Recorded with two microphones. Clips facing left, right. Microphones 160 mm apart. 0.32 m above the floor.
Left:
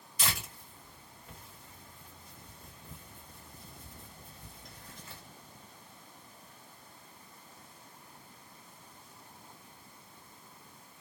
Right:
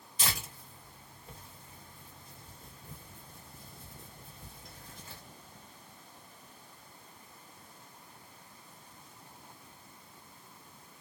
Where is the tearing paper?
30° right (ahead or behind), 1.6 m.